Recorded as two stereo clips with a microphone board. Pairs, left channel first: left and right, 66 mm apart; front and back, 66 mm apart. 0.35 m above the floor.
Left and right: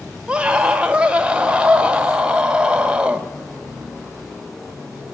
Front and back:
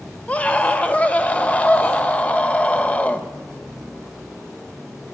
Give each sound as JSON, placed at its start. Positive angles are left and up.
{"t": 0.3, "sound": "a scream", "azimuth_deg": -35, "distance_m": 1.0}